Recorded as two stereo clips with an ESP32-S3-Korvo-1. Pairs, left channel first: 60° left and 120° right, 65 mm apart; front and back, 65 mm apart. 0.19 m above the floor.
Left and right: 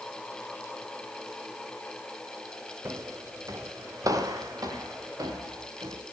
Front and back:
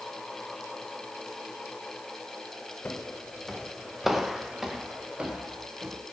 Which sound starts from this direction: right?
Footsteps, at 2.9 s.